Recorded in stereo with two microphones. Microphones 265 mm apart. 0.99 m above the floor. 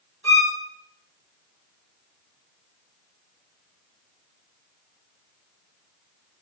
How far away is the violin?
About 1.6 m.